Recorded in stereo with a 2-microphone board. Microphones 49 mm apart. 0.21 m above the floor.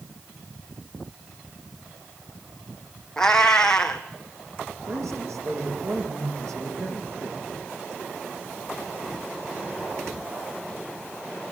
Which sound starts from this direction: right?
A man speaking, at 4.9 s.